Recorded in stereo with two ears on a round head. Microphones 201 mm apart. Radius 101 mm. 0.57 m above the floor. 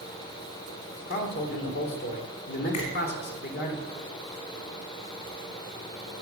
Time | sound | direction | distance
1.1 | a man speaking | 50° left (ahead or behind) | 1.7 m
2.7 | a finger snap | 80° left | 4 m